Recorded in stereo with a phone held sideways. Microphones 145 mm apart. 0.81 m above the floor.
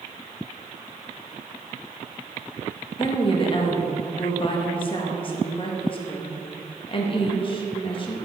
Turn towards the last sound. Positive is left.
turn(degrees=35)  # may be behind; listen again after turning